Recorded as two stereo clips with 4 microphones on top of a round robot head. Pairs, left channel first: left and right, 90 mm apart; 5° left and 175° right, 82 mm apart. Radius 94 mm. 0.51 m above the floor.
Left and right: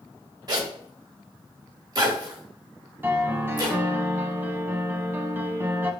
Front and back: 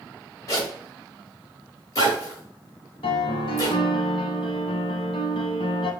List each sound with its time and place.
0.5 s a zipper: 50° right, 2 m
3.0 s a piano: 25° right, 0.6 m